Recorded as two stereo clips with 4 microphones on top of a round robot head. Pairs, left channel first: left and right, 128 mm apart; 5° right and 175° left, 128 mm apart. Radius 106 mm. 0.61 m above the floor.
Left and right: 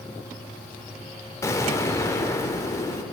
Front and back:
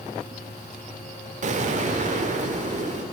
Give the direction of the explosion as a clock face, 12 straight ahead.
7 o'clock.